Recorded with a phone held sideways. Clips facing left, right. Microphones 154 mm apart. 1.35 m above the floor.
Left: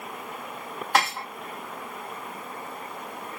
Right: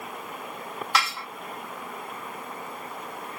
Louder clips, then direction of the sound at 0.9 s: Left 4 dB; 50° left (ahead or behind).